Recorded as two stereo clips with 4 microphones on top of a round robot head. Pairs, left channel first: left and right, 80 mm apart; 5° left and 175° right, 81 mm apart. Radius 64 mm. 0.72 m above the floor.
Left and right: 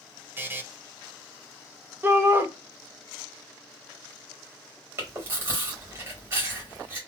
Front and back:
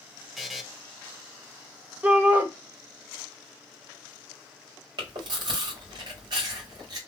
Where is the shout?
125° right, 0.8 m.